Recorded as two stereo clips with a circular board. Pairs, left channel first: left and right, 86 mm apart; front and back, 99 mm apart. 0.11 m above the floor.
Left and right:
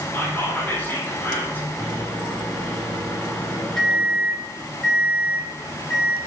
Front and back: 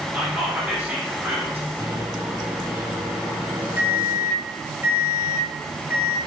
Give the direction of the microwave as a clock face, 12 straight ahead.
7 o'clock.